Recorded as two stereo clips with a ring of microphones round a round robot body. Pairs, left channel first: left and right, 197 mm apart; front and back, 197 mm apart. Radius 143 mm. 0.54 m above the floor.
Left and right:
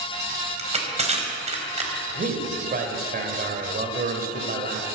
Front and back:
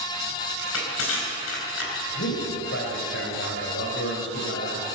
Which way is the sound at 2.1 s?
45° right.